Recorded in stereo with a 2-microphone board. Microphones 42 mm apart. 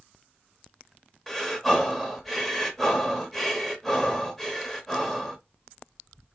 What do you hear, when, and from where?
1.3 s breathing: 5° left (ahead or behind), 0.9 m